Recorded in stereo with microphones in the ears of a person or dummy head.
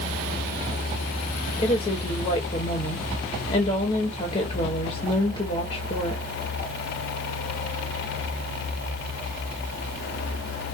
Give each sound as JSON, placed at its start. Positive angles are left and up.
{"t": 1.6, "sound": "a woman speaking", "side_deg": 35, "distance_m": 1.5}